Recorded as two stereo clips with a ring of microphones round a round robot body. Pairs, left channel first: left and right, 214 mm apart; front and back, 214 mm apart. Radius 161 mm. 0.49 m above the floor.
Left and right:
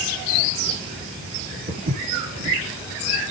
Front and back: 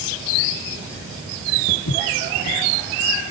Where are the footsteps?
45° right, 4 m.